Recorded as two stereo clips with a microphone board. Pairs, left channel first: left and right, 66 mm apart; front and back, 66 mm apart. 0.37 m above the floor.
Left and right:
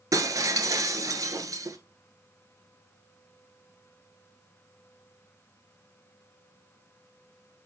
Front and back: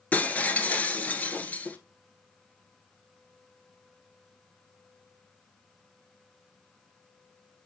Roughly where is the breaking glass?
Ahead right.